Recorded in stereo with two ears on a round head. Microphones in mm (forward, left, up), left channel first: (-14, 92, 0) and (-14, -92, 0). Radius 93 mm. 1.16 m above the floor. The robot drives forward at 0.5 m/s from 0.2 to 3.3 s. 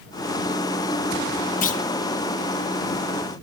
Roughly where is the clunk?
Left.